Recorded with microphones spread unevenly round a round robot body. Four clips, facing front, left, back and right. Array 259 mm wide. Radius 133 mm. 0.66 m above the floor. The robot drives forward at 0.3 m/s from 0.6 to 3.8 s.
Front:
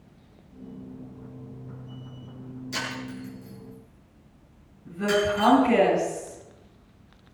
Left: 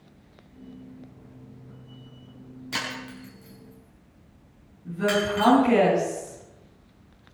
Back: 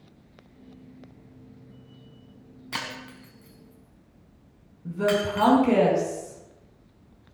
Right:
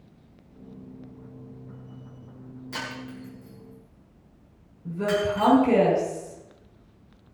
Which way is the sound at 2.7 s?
140° left.